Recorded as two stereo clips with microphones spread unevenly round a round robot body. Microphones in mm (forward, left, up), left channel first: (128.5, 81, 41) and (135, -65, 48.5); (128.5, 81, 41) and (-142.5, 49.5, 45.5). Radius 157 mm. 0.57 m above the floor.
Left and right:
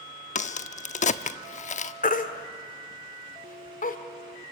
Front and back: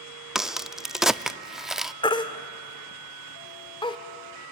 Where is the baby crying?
80° left, 1.4 m.